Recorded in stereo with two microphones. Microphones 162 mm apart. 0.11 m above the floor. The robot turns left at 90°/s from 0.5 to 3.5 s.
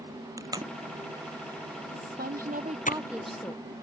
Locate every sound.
0.4 s tape being pulled: 20° right (ahead or behind); by 2.9 s 60° left (ahead or behind)
1.9 s a woman speaking: 60° right; by 3.7 s 160° left